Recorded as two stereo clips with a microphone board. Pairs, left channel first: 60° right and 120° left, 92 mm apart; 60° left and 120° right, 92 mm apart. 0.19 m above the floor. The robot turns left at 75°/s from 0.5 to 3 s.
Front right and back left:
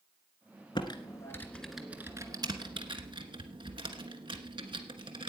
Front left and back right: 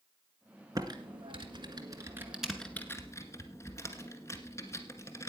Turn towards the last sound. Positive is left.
turn(degrees=115)